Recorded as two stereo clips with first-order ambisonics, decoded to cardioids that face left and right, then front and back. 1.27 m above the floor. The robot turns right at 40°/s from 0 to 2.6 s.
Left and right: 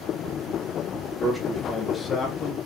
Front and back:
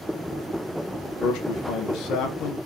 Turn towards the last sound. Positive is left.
turn(degrees=40)